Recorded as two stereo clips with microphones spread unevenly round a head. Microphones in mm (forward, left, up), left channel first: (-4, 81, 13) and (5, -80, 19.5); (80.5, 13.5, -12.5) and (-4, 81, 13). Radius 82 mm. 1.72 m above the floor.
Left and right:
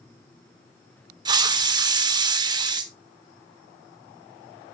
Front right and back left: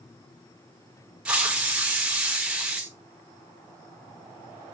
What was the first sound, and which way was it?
A hiss, 145° right.